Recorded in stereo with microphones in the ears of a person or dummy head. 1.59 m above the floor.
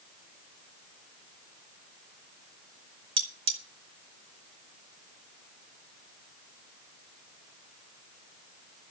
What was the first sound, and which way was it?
Cutlery clinking, 25° right (ahead or behind).